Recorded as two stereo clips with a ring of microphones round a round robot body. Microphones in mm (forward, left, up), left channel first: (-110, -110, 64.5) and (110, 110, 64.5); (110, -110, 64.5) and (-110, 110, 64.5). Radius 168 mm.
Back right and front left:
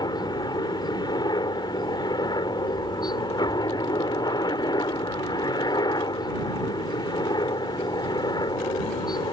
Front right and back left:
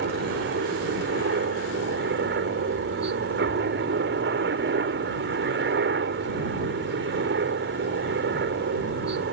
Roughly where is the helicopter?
Behind left.